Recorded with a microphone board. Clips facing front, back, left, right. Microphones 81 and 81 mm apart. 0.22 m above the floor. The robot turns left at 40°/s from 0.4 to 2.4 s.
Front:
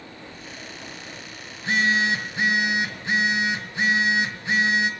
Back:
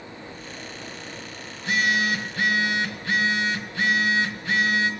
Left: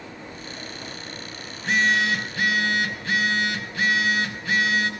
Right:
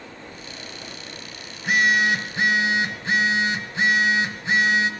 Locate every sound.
1.5 s a phone buzzing: 15° right, 1.8 m; by 4.9 s 50° right, 1.8 m